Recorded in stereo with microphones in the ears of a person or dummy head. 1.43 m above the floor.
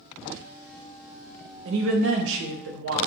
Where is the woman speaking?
75° right (ahead or behind), 0.5 m.